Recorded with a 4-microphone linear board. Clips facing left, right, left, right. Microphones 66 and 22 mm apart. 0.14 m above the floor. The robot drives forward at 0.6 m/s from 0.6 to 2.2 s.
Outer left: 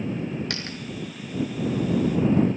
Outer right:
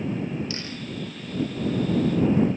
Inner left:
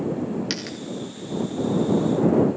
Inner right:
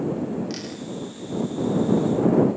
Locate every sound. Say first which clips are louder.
0.5 s a dropped coin: even, inner left 3 dB; 65° left (ahead or behind), 5.5 m; by 0.8 s 60° left (ahead or behind), 5.5 m